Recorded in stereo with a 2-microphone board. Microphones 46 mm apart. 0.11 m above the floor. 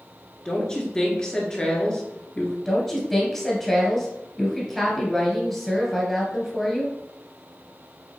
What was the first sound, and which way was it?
A woman speaking, 20° left (ahead or behind).